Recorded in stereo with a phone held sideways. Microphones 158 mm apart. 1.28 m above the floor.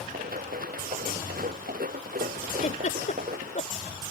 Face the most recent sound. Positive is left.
turn(degrees=55)  # may be behind; listen again after turning